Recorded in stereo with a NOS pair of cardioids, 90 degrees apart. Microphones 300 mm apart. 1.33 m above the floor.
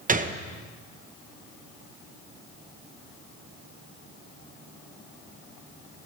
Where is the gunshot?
25° right, 1.0 m.